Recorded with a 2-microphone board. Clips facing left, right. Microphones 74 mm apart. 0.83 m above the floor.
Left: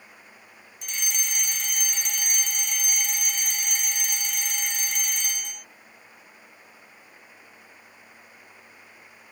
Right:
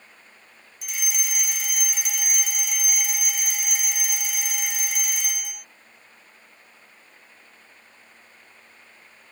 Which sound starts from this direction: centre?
A fire alarm, at 0.8 s.